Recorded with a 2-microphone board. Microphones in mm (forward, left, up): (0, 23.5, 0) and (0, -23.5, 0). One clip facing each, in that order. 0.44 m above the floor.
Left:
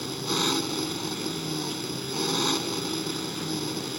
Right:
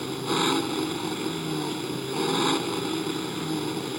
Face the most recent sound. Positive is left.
turn(degrees=-15)  # may be behind; listen again after turning